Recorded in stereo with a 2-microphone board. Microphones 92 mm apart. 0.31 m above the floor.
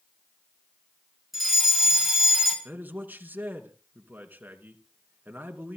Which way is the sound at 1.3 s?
Centre (ahead or behind).